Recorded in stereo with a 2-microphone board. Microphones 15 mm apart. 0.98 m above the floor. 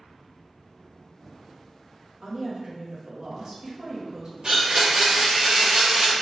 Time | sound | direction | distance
2.2 | a woman speaking | 55° right (ahead or behind) | 1.5 m
4.4 | a blender | 60° right (ahead or behind) | 1.6 m